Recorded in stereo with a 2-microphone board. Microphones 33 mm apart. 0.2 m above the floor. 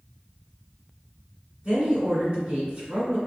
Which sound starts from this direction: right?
A woman speaking, at 1.6 s.